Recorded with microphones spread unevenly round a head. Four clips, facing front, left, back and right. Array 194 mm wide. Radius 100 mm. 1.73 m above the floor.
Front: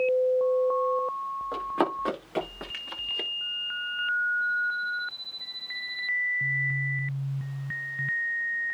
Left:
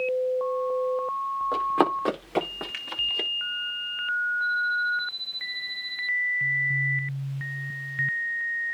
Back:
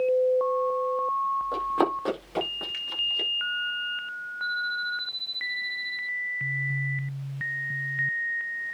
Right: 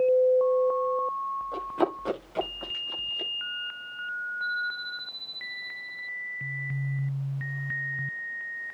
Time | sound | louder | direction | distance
1.5 | running footsteps | left 6 dB, front 1 dB | 90° left | 6.5 m